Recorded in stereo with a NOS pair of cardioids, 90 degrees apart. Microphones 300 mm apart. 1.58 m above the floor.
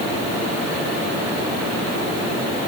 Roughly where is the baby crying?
No baby crying in this recording.